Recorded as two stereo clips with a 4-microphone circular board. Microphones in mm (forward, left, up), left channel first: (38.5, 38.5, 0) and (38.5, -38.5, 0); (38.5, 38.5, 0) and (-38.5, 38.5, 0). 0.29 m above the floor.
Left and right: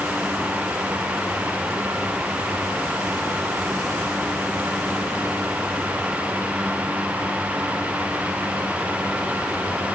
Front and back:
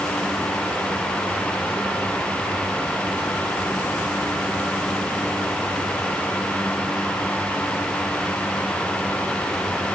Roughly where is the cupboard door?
I don't hear a cupboard door.